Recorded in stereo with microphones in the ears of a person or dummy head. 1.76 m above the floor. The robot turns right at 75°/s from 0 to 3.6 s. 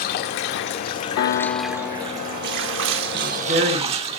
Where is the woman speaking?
165° right, 3 m; by 4.1 s 130° right, 3 m.